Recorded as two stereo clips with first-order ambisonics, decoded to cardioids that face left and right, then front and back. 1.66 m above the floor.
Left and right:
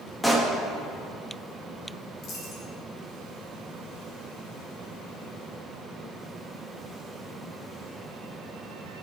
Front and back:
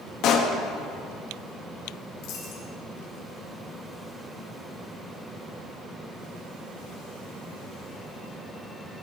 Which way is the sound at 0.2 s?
5° left.